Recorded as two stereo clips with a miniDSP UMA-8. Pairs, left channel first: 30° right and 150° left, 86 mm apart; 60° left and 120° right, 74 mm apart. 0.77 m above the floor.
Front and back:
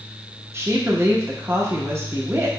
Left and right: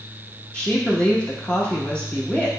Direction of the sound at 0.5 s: 120° left.